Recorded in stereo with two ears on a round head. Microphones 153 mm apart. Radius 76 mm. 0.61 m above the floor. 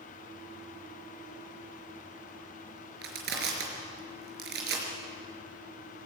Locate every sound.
3.0 s crushing: 65° right (ahead or behind), 5 m